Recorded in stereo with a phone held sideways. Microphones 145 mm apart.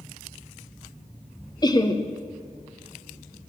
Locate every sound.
1.6 s laughter: 30° left (ahead or behind), 1.2 m